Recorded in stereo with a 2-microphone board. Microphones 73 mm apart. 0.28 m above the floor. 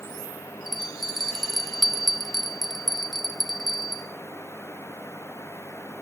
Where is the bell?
Centre (ahead or behind), 0.5 m.